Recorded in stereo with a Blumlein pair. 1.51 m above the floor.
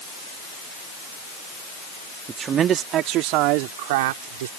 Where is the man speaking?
20° right; by 4.5 s 55° right.